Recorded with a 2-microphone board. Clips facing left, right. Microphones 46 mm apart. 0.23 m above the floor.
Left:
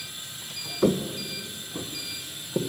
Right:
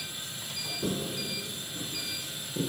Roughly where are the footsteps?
Left.